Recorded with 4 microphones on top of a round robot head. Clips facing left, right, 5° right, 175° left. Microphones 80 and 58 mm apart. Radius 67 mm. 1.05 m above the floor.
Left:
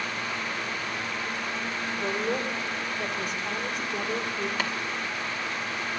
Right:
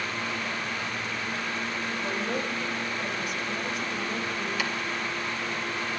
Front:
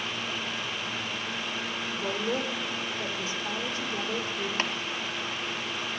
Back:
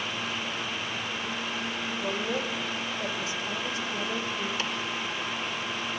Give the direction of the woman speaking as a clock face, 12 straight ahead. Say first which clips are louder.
Left 3 dB, front 1 dB; 10 o'clock.